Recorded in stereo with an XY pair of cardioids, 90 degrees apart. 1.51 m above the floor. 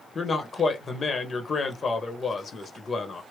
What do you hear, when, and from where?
0.1 s a man speaking: 40° left, 1.2 m